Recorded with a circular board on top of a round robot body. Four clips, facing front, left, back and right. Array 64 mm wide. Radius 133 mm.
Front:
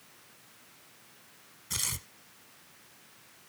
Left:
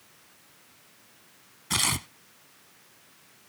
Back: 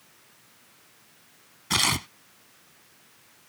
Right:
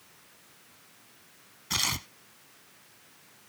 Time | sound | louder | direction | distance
1.7 | tearing paper | left 3 dB, back 15 dB | 165° left | ?